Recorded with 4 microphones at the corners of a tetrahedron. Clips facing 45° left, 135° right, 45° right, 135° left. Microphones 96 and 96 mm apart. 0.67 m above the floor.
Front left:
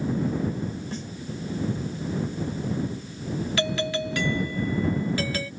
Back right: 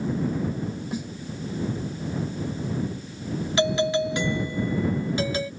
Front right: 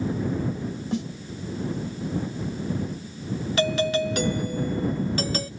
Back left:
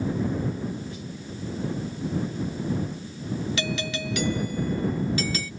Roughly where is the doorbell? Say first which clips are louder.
Back right 7 dB, front right 7 dB; right.